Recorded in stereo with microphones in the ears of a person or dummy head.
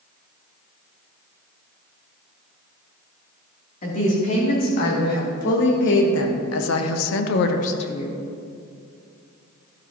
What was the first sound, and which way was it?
A woman speaking, 55° left (ahead or behind).